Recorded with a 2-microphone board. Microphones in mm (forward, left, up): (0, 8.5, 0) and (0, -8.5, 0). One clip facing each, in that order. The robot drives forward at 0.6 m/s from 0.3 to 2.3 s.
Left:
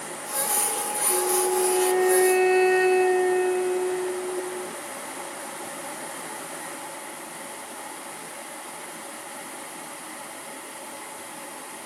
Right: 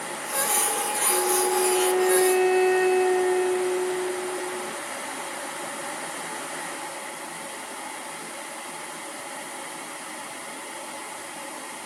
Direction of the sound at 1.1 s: 10° left (ahead or behind).